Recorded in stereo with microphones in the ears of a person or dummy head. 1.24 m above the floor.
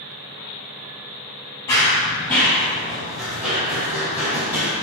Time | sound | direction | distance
1.7 | running footsteps | 15° left (ahead or behind) | 1.4 m